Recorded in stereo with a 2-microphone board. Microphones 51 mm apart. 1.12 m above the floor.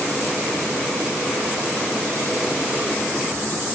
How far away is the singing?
I don't hear singing.